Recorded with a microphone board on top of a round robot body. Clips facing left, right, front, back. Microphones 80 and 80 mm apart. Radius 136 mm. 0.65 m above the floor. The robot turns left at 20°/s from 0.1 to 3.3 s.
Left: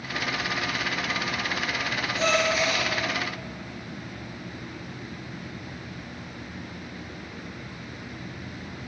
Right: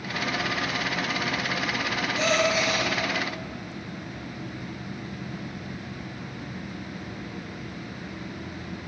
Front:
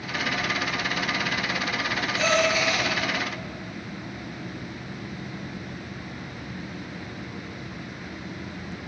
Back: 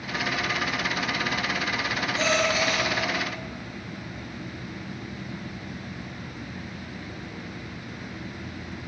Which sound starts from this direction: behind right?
A gasp, at 2.2 s.